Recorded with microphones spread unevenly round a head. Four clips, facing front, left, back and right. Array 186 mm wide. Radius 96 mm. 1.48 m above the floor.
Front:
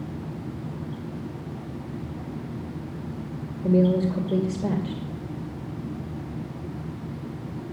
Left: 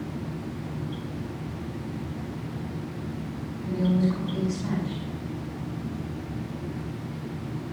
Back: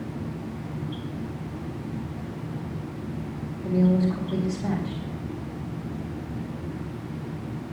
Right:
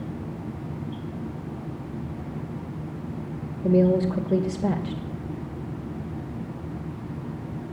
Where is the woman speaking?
60° right, 2.5 m.